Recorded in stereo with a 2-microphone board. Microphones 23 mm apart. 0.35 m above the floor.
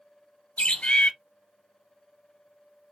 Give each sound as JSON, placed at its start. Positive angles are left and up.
{"t": 0.6, "sound": "a bird", "side_deg": 70, "distance_m": 0.8}